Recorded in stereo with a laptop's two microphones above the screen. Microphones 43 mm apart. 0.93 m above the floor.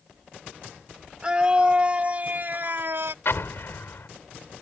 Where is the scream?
20° right (ahead or behind); by 3.1 s 65° right (ahead or behind).